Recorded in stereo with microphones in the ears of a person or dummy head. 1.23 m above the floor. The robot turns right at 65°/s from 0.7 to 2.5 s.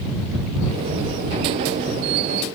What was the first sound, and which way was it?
Only background noise.